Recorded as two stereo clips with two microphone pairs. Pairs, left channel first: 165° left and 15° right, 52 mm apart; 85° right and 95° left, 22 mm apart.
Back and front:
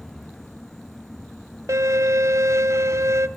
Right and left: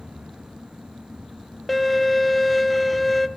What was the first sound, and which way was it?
A violin, 5° left.